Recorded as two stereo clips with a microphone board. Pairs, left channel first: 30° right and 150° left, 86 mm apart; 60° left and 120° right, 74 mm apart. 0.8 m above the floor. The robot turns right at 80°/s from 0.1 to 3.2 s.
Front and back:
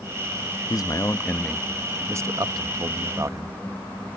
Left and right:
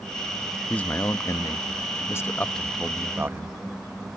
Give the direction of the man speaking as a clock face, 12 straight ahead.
12 o'clock.